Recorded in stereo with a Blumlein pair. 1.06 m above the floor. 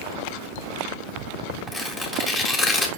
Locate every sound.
1.7 s tearing paper: straight ahead, 1.8 m